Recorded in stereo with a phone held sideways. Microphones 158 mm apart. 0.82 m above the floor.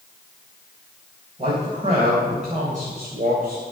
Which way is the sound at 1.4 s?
35° right (ahead or behind).